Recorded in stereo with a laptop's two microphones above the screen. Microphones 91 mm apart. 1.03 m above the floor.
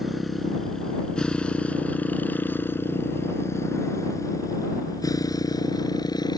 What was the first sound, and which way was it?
A motorcycle, centre (ahead or behind).